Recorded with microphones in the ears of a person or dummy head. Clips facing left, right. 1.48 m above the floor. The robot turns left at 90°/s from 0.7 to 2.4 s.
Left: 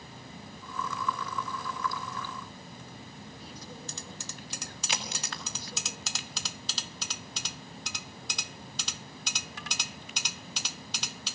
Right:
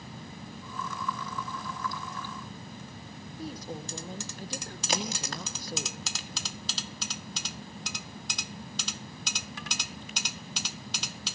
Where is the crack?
40° right (ahead or behind), 2 m.